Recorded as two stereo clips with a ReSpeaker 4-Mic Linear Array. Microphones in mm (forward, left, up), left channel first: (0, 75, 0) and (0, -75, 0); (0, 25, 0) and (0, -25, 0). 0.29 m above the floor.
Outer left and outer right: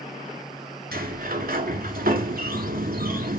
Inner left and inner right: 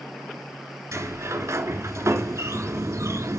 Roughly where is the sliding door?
Right.